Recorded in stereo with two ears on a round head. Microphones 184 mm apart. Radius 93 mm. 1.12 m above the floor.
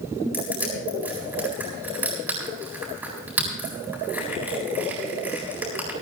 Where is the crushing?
10° right (ahead or behind), 8.5 m.